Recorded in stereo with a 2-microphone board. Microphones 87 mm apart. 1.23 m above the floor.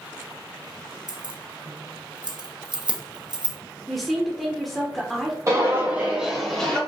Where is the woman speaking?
Centre (ahead or behind), 0.7 m.